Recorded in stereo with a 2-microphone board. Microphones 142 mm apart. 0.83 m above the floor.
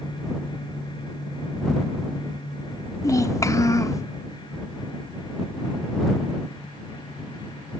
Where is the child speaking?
25° left (ahead or behind).